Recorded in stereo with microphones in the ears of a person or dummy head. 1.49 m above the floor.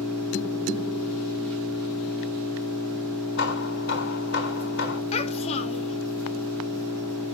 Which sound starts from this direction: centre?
An engine running, at 0.0 s.